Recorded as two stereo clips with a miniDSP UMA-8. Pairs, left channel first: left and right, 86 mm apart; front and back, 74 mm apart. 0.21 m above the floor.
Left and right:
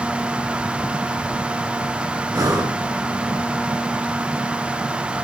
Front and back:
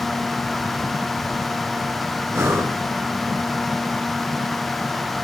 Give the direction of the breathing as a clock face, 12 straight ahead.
4 o'clock.